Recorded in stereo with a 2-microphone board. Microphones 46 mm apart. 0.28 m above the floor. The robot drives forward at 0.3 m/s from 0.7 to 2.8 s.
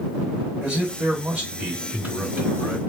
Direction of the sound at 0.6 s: 35° right (ahead or behind).